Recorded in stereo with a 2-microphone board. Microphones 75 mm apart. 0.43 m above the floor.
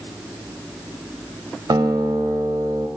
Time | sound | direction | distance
1.7 | a guitar | 70° right (ahead or behind) | 0.8 m